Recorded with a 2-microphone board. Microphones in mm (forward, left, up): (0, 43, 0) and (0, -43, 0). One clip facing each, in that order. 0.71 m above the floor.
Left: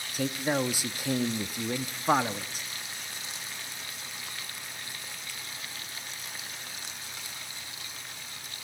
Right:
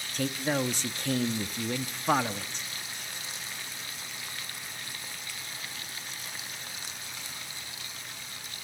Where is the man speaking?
10° left (ahead or behind), 0.7 m.